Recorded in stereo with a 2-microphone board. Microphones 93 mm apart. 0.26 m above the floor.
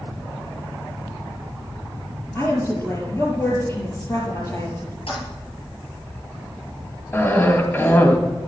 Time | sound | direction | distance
2.4 | a woman speaking | 30° left (ahead or behind) | 4.5 m
5.1 | a toilet flushing | 70° left (ahead or behind) | 6 m
7.1 | a cough | 20° left (ahead or behind) | 1.9 m